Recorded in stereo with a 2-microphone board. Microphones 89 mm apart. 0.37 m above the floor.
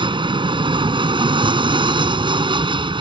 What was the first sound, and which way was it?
An aircraft, 65° right (ahead or behind).